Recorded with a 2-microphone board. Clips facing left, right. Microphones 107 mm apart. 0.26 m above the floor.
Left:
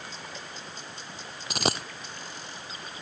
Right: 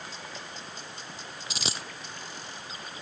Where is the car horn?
I don't hear a car horn.